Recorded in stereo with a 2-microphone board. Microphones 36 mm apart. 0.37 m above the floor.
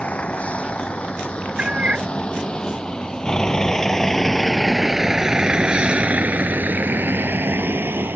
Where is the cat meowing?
35° right (ahead or behind).